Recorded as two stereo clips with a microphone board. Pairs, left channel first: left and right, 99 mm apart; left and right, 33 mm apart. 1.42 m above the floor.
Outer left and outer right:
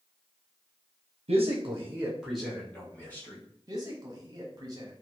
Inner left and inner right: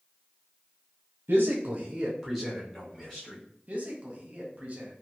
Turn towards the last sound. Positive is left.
turn(degrees=-40)  # may be behind; listen again after turning